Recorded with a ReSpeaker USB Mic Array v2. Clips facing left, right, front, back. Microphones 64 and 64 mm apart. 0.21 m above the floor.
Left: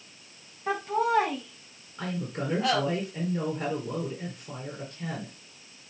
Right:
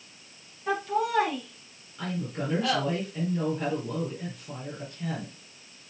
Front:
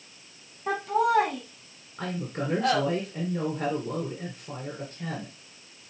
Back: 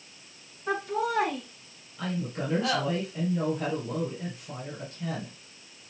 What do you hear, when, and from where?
0.7 s laughter: 20° left, 5.5 m
2.0 s a woman speaking: 15° left, 4 m